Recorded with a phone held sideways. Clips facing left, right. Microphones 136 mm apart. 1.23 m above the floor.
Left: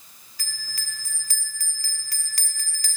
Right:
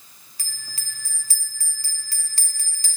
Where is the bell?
30° right (ahead or behind), 0.9 m.